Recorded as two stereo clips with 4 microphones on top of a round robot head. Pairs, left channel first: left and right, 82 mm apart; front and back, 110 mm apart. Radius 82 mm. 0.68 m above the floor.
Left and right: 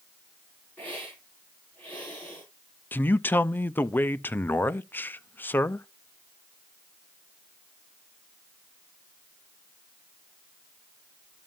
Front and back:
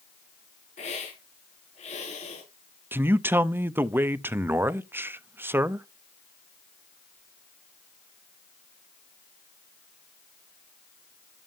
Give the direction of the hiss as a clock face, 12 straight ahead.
12 o'clock.